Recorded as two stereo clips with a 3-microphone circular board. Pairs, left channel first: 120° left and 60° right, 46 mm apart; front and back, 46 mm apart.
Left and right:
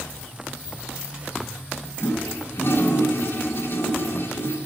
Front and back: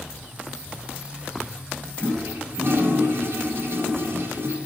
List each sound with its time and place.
2.0 s a toilet flushing: 150° left, 2.0 m